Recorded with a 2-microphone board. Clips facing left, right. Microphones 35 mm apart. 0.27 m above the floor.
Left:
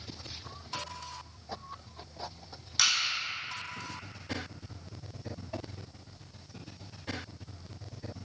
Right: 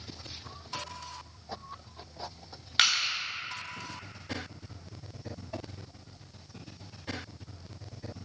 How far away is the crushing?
About 0.7 m.